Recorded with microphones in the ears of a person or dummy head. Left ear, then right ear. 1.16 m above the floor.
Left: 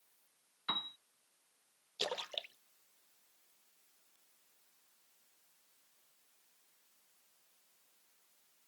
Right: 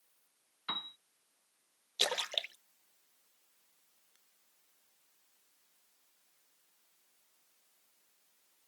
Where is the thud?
I don't hear a thud.